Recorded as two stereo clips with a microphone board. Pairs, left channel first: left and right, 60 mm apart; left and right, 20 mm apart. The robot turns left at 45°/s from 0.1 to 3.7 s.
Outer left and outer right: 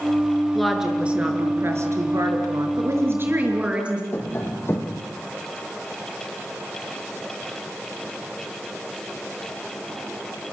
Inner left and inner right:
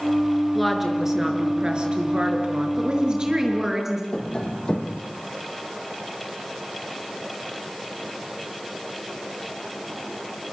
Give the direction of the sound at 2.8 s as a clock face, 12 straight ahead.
4 o'clock.